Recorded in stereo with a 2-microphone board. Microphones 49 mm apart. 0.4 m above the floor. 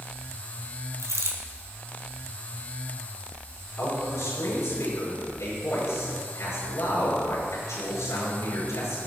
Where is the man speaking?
80° left, 6.5 m.